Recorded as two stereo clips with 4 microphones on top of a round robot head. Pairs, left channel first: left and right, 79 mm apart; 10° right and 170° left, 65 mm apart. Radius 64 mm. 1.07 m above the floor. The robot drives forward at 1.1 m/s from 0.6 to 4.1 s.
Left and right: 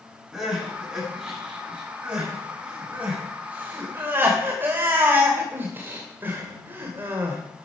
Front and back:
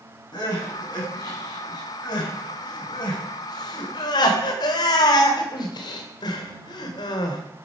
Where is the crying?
10° right, 6.5 m; by 7.4 s 20° right, 3 m.